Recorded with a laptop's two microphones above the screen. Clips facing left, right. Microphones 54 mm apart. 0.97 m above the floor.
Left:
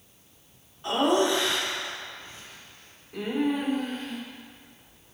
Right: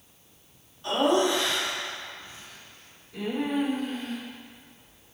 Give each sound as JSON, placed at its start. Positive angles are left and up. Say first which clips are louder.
{"t": 0.8, "sound": "laughter", "louder": "even", "side_deg": 25, "distance_m": 3.0}